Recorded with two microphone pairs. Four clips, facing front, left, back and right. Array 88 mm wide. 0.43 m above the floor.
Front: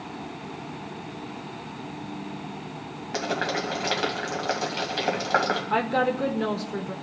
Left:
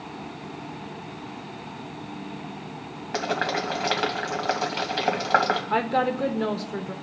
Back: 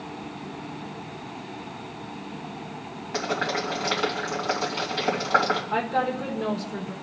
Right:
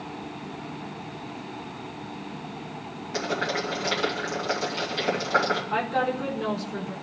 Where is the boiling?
90° left, 3 m.